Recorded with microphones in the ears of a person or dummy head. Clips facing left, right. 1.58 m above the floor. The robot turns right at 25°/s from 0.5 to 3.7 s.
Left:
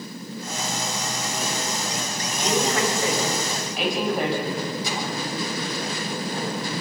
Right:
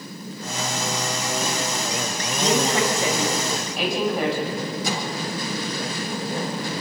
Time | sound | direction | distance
2.4 | a woman speaking | 35° right | 9.5 m
4.8 | a microwave | 50° right (ahead or behind) | 8.5 m